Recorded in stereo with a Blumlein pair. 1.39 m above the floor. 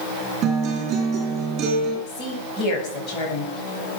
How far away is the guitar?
About 6.5 m.